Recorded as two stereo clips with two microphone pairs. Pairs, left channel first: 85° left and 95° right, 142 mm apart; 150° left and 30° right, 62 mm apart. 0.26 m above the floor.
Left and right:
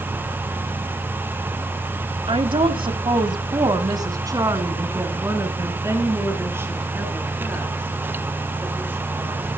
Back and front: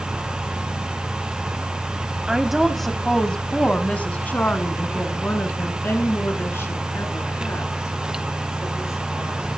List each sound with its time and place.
2.3 s a woman speaking: 110° right, 1.3 m; by 9.6 s 170° right, 5 m